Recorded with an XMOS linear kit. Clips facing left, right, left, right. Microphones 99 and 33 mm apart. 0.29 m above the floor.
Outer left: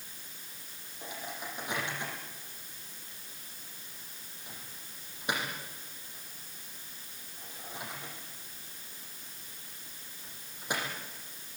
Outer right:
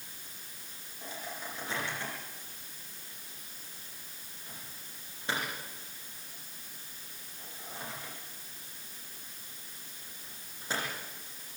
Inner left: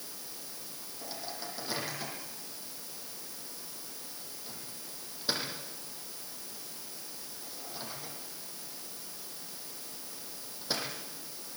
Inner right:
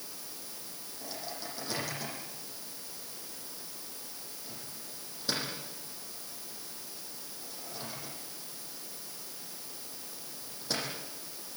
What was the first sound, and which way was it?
A microwave, 15° left (ahead or behind).